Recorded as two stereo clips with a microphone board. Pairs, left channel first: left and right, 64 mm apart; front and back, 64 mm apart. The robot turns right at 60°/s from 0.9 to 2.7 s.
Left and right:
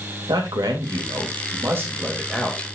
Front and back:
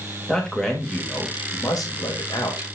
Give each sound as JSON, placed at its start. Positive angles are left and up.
{"t": 0.3, "sound": "a man speaking", "azimuth_deg": -80, "distance_m": 3.0}